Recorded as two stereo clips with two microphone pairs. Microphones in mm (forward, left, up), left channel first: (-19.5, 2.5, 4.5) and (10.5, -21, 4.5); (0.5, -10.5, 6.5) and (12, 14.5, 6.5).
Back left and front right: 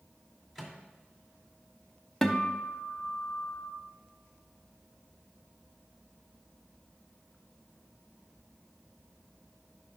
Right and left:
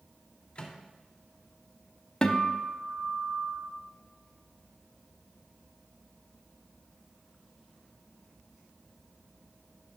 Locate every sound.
0.6 s a microwave: 120° right, 1.8 m
2.2 s a guitar: 140° right, 0.8 m